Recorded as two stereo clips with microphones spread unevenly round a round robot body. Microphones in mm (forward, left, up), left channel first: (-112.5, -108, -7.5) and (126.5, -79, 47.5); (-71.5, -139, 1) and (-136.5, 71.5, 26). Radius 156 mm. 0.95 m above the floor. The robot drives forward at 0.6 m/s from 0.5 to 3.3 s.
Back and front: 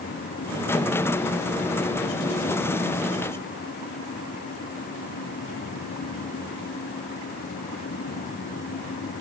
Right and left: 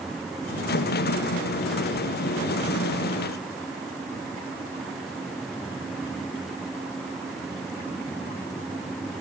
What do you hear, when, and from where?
Only background noise.